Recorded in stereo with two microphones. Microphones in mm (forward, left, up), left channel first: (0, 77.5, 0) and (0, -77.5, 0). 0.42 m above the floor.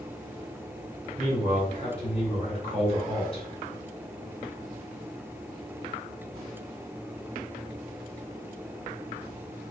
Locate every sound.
1.2 s a man speaking: 40° left (ahead or behind), 1.9 m